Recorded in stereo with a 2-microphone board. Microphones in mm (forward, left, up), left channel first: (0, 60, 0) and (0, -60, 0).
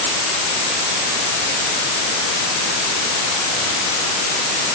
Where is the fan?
No fan in this recording.